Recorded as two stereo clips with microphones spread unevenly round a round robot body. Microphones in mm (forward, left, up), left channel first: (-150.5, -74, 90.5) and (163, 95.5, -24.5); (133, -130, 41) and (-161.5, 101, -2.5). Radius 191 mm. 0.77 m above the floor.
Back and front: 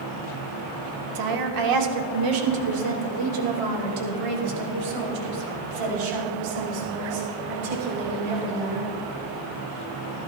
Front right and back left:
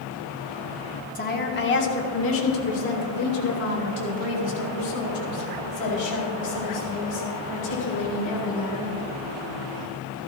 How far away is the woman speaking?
About 1.6 m.